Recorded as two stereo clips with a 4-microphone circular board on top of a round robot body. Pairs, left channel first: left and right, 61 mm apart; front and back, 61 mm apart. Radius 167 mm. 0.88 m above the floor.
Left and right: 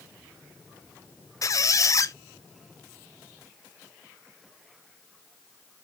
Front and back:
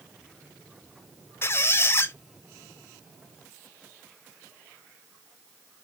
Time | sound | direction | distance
1.4 | a squeak | 50° left | 0.6 m